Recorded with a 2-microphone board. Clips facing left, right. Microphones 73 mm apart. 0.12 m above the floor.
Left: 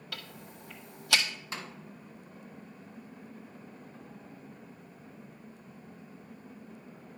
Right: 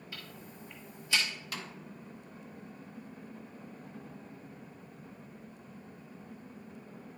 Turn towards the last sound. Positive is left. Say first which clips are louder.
# left 4 dB
turn(degrees=30)  # may be behind; listen again after turning